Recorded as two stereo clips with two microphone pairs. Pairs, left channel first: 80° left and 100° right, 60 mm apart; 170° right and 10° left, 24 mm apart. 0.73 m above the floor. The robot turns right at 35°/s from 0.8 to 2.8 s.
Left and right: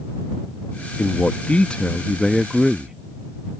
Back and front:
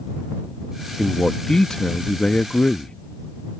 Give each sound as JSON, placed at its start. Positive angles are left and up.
{"t": 1.0, "sound": "a man speaking", "azimuth_deg": 125}